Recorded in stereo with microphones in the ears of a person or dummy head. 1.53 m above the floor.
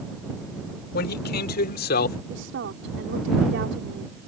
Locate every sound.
0.9 s a man speaking: 50° left (ahead or behind); by 2.2 s 45° left (ahead or behind)
2.3 s a woman speaking: 60° right (ahead or behind)